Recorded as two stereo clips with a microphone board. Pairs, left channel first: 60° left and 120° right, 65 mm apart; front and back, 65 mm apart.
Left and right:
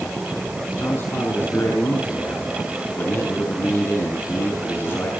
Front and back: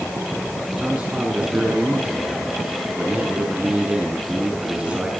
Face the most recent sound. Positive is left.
turn(degrees=105)